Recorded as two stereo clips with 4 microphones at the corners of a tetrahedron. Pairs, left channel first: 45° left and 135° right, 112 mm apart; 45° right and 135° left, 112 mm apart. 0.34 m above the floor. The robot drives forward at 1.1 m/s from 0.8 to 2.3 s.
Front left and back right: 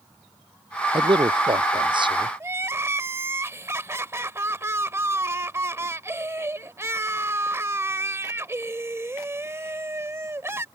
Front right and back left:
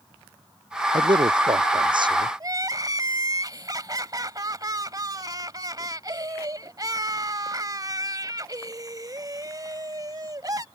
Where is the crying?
170° left.